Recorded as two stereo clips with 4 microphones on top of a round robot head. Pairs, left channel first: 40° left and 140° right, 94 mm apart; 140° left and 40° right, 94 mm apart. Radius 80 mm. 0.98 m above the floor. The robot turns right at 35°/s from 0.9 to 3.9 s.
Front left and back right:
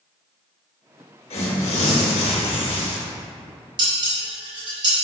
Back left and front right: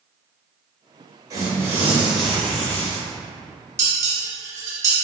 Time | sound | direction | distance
1.3 | tearing paper | 15° left | 1.5 m
3.8 | dishes clattering | 100° right | 2 m